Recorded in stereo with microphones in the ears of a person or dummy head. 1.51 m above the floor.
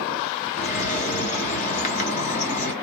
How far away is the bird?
About 1.2 m.